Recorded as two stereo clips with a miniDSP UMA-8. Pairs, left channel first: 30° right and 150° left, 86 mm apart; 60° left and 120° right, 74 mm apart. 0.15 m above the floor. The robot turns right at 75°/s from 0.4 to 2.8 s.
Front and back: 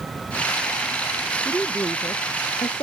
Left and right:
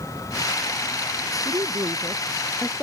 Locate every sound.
1.4 s a woman speaking: 120° right; by 2.8 s 20° right